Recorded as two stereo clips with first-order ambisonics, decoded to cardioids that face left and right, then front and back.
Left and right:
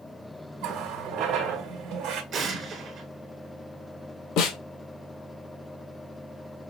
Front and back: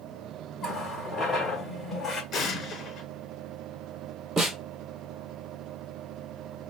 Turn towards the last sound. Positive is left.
turn(degrees=120)